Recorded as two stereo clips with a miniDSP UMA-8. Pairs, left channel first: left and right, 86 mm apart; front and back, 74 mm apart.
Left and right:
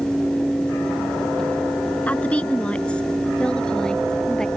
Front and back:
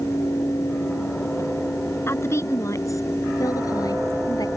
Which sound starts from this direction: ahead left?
A woman speaking, at 2.1 s.